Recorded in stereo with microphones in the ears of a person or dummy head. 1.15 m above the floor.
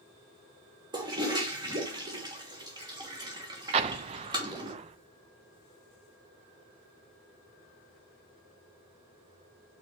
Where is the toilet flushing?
20° right (ahead or behind), 1.2 m.